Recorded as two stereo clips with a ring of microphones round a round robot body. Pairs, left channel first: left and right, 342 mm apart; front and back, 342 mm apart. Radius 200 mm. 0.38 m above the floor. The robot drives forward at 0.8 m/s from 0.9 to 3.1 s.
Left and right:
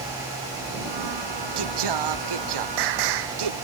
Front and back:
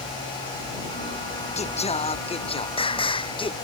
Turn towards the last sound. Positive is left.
turn(degrees=-75)